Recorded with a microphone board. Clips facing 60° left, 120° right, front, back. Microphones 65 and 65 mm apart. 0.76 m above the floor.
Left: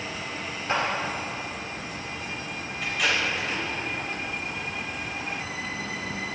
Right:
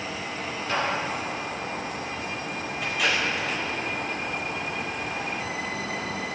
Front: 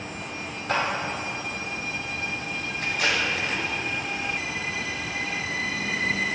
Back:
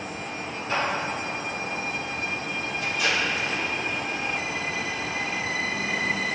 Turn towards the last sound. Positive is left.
turn(degrees=-35)